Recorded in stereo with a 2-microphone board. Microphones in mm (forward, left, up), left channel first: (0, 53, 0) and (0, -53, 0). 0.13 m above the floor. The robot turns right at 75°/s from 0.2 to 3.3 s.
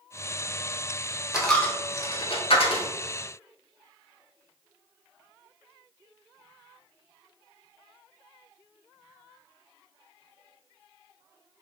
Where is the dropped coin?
5° right (ahead or behind), 0.7 m; by 2.9 s 60° left (ahead or behind), 0.7 m.